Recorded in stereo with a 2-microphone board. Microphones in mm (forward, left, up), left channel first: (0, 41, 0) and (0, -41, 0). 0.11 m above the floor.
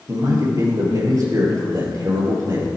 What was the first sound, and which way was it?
A man speaking, 45° right (ahead or behind).